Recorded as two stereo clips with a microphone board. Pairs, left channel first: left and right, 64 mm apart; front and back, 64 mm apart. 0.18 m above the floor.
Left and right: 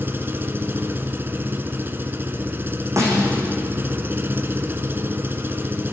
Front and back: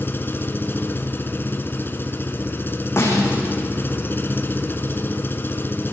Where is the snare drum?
50° right, 7.5 m.